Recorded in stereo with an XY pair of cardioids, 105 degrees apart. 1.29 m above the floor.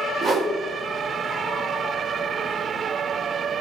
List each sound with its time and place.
0.2 s a whoosh: 35° right, 1.3 m